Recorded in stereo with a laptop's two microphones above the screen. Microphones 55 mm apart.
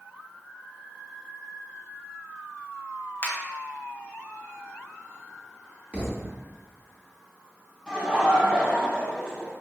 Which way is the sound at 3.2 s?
45° left (ahead or behind).